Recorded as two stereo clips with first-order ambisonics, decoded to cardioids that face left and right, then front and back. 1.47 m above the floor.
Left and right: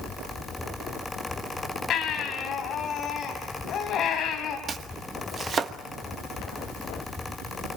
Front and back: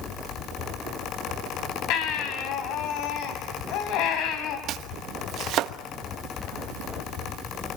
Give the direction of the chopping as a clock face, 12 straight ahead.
5 o'clock.